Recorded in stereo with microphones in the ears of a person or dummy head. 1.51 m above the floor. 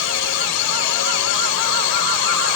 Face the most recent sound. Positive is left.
turn(degrees=65)  # may be behind; listen again after turning